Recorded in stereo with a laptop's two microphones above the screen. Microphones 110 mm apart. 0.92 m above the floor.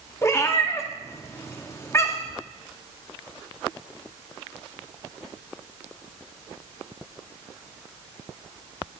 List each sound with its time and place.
0.2 s a cat meowing: 25° left (ahead or behind), 0.6 m